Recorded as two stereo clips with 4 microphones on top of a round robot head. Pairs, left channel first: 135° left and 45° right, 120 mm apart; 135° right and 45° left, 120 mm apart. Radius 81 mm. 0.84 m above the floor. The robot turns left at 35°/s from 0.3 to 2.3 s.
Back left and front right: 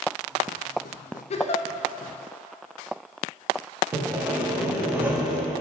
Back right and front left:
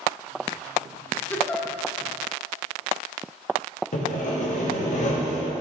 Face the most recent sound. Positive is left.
turn(degrees=-120)